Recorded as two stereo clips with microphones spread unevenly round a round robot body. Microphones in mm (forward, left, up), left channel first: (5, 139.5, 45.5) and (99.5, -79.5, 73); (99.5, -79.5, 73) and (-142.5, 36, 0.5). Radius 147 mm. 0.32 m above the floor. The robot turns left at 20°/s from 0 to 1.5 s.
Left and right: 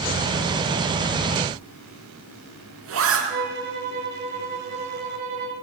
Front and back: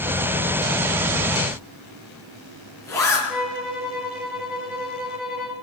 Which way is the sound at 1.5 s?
110° right.